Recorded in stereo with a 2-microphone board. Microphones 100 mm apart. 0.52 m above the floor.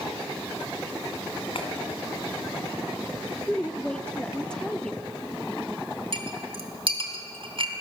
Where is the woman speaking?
10° left (ahead or behind), 0.8 m.